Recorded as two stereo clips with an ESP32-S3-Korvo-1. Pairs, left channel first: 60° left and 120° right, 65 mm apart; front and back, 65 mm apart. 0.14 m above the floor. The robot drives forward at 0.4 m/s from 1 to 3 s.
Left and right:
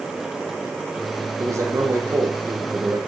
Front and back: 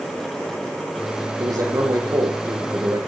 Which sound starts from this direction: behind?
A man speaking, at 1.4 s.